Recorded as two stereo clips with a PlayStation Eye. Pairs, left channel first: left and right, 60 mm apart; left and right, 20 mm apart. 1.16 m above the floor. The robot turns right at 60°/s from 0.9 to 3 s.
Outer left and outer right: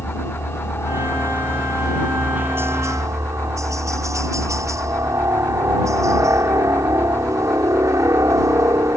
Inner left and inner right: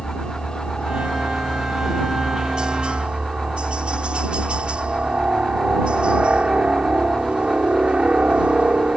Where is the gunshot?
I don't hear a gunshot.